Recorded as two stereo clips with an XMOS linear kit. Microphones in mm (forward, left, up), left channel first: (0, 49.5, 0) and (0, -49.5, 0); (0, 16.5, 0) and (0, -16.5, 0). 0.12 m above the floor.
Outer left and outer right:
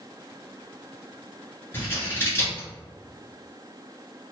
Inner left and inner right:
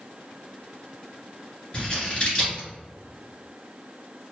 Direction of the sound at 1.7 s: 25° left (ahead or behind).